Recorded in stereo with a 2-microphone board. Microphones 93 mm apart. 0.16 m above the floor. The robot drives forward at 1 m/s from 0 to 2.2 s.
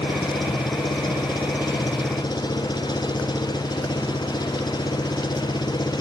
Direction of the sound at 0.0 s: 55° left (ahead or behind).